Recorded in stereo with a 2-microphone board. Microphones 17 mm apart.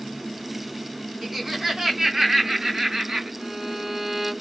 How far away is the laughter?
About 3 m.